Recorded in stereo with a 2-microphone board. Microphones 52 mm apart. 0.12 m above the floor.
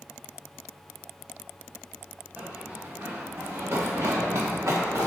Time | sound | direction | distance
2.4 | running footsteps | 30° right (ahead or behind) | 1.3 m